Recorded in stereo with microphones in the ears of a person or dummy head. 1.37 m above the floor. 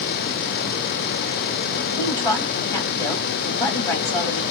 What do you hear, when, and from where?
2.0 s a woman speaking: 15° left (ahead or behind), 2 m